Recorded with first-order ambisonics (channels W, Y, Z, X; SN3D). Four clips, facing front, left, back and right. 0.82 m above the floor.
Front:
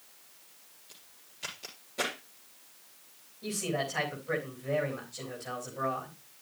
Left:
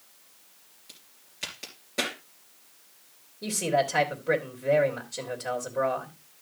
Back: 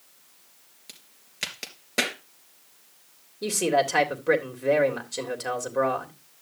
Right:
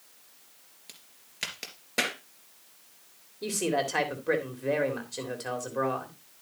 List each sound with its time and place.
0.9 s a crack: 155° right, 3 m
3.4 s a man speaking: 170° right, 3 m